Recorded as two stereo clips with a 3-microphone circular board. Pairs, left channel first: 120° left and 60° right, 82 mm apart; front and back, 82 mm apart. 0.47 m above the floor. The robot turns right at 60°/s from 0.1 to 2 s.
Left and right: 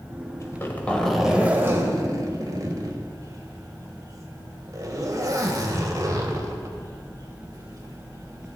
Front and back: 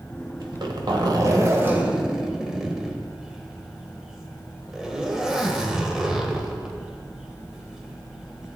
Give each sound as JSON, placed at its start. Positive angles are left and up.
{"t": 0.4, "sound": "a zipper", "azimuth_deg": 165, "distance_m": 1.4}